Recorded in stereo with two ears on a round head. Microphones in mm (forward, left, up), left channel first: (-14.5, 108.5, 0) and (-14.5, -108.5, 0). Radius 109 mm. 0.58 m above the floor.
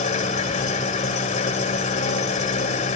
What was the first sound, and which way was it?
An engine running, 30° left (ahead or behind).